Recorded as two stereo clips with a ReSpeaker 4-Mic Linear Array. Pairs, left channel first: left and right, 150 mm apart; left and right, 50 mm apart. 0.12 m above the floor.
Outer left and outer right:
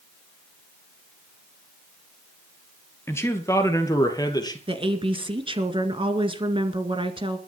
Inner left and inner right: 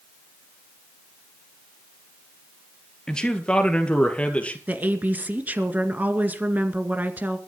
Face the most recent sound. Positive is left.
turn(degrees=-35)  # may be behind; listen again after turning